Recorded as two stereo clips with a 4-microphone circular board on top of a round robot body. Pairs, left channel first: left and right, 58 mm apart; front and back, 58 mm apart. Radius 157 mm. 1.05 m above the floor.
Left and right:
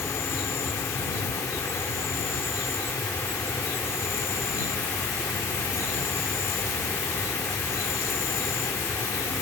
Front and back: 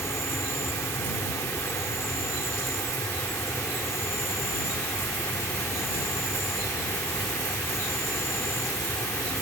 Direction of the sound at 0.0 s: 45° left.